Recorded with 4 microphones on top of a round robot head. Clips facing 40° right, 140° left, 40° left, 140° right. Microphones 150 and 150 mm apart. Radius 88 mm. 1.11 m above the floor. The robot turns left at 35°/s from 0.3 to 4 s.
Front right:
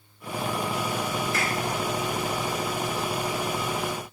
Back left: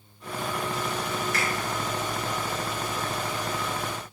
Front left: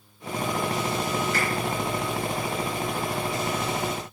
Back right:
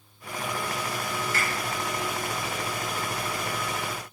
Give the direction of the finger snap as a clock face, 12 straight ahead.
6 o'clock.